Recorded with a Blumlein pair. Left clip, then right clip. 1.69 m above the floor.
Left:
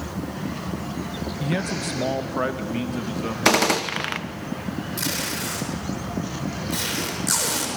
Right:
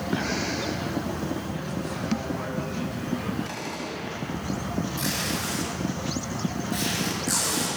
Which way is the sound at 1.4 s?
40° left.